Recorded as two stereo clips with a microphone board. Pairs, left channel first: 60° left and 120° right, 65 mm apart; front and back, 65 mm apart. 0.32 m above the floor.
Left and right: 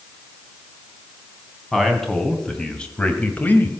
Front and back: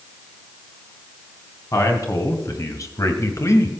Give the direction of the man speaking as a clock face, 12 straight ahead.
1 o'clock.